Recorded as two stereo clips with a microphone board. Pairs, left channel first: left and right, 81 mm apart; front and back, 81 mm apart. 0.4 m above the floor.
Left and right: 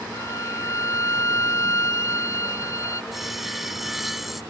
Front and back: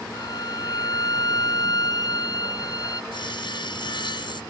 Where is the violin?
40° left.